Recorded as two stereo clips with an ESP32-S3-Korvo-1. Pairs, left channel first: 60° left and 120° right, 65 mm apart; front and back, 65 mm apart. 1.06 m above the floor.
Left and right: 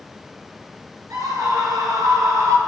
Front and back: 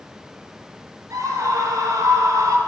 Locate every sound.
1.1 s a scream: 140° right, 6.5 m; by 2.6 s 155° right, 5 m